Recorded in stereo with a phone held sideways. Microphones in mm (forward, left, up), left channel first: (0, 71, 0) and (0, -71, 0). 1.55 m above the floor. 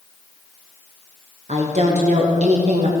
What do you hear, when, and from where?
1.5 s a woman speaking: 55° right (ahead or behind), 1.1 m